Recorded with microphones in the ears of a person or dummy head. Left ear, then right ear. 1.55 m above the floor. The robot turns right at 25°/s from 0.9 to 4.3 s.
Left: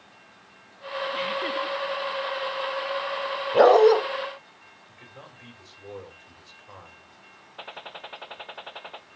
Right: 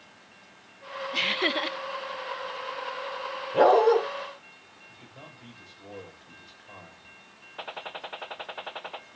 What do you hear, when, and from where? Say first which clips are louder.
1.1 s laughter: right 5 dB; 25° right (ahead or behind), 0.6 m; by 1.8 s 35° right (ahead or behind), 0.6 m
3.5 s a dog barking: left 3 dB; 55° left (ahead or behind), 3 m; by 4.0 s 60° left (ahead or behind), 3 m
4.9 s a man speaking: left 2 dB; 60° left (ahead or behind), 6.5 m
7.6 s a gunshot: right 2 dB; 5° right (ahead or behind), 0.5 m